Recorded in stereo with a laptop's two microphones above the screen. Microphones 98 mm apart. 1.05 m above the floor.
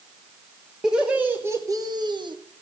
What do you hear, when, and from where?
0.8 s laughter: 5° right (ahead or behind), 1.3 m; by 2.4 s 50° right (ahead or behind), 1.1 m